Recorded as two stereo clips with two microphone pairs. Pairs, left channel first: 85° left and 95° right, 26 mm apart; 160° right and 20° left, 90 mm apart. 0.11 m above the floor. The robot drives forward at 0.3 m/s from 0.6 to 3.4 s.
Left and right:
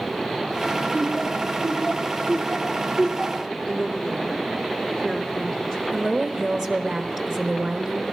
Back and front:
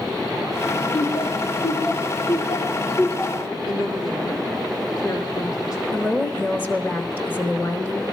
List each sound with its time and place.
0.9 s laughter: 160° left, 3.5 m
3.7 s a woman speaking: 160° left, 4.5 m
5.9 s a woman speaking: 145° right, 1.2 m